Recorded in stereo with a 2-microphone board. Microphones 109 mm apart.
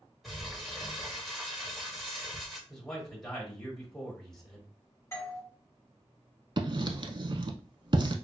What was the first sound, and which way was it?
Crumpling, centre (ahead or behind).